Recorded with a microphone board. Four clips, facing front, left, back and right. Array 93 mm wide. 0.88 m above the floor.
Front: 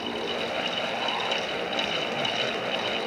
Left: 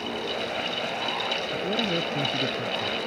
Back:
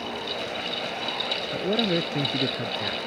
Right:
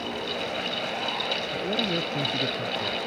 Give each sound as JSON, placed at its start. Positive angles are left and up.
{"t": 1.5, "sound": "a man speaking", "azimuth_deg": 180}